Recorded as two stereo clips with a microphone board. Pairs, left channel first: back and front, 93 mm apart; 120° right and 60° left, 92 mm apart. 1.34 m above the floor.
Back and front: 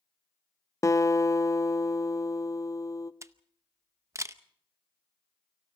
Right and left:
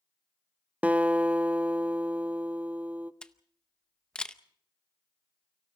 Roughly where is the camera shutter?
Ahead right.